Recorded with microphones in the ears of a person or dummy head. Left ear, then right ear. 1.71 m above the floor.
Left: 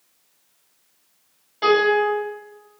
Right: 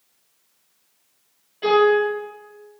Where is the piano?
55° left (ahead or behind), 1.5 m.